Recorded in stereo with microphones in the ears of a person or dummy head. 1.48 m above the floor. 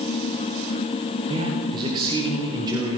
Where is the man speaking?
25° right (ahead or behind), 4.5 m; by 3.0 s 15° right (ahead or behind), 4 m.